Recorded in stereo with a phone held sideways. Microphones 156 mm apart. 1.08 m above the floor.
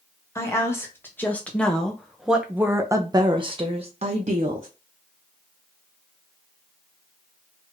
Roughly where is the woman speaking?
Centre.